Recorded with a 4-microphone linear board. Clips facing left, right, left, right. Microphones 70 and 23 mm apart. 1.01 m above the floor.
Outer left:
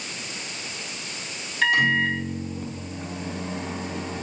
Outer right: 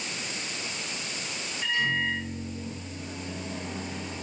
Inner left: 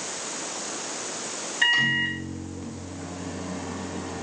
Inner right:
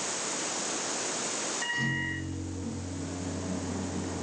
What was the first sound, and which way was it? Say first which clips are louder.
A microwave: outer left 7 dB, inner left 12 dB; 85° left.